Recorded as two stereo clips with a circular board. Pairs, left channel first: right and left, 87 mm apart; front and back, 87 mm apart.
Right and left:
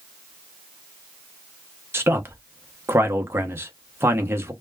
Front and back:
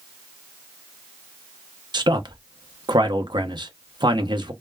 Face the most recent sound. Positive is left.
turn(degrees=150)